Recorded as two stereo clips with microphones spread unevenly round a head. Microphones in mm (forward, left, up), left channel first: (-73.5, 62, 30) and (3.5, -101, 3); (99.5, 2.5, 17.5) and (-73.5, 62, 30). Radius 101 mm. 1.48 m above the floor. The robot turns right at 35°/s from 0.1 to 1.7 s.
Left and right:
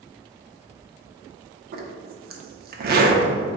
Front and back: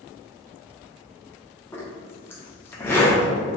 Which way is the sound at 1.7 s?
95° right.